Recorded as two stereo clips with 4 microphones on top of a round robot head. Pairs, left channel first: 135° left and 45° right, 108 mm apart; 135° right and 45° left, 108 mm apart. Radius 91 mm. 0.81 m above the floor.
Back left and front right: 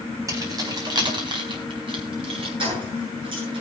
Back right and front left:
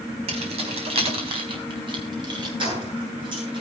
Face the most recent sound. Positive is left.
turn(degrees=0)